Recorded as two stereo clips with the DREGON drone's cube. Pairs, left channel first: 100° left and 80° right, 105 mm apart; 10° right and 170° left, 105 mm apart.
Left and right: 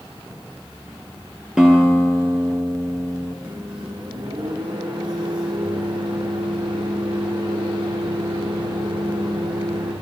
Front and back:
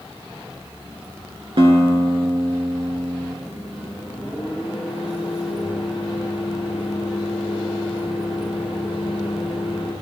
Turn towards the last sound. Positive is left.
turn(degrees=-110)